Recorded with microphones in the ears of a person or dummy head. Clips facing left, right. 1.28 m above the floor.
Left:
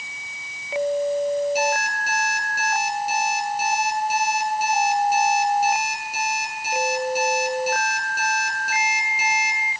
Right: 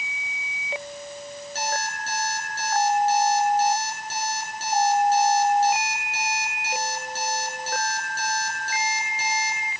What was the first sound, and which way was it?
An alarm clock, 20° left (ahead or behind).